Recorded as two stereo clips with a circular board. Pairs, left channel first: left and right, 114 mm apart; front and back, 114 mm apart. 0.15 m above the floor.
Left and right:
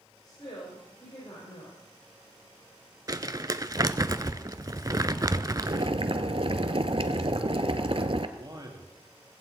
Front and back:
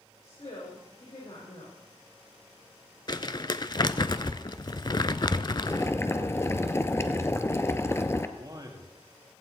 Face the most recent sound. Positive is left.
turn(degrees=-135)